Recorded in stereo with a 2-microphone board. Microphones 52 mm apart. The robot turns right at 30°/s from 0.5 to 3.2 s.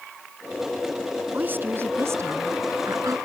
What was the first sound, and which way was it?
A woman speaking, 145° right.